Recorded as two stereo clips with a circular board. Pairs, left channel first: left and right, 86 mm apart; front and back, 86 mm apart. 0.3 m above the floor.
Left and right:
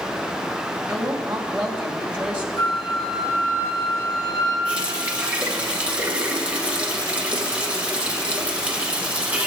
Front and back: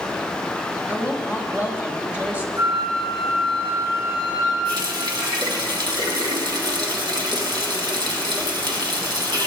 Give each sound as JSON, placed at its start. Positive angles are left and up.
{"t": 0.9, "sound": "a woman speaking", "azimuth_deg": -140, "distance_m": 1.6}
{"t": 2.6, "sound": "a flute", "azimuth_deg": 135, "distance_m": 5.5}
{"t": 4.7, "sound": "a running tap", "azimuth_deg": -165, "distance_m": 1.7}